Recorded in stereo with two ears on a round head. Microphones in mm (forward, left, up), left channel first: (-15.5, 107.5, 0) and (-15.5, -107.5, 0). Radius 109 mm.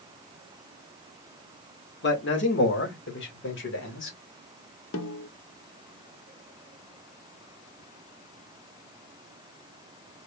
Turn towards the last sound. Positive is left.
turn(degrees=60)  # may be behind; listen again after turning